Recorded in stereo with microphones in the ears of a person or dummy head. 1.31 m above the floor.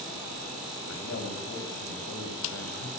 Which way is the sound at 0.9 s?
85° left.